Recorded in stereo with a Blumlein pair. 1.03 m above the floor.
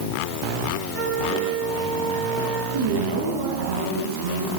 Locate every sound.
0.9 s a flute: 30° right, 8 m
2.7 s a woman speaking: 55° right, 8.5 m